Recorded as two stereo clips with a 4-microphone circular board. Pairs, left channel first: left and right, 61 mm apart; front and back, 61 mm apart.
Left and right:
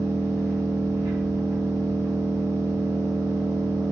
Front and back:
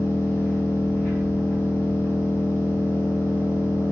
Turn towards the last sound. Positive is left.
turn(degrees=-50)